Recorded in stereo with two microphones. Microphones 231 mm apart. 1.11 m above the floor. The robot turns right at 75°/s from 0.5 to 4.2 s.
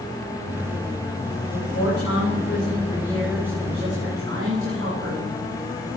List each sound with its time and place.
1.5 s a woman speaking: 45° left, 5.5 m; by 5.3 s 115° right, 5.5 m